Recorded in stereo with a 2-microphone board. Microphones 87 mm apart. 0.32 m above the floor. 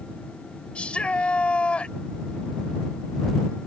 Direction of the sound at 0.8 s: 15° left (ahead or behind).